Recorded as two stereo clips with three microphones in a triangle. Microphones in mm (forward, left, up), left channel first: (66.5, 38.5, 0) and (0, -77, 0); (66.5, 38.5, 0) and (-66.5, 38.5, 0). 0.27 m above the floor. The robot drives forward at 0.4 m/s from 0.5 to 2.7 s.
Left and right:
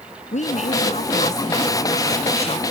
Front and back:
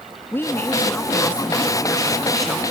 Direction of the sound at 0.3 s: 70° left.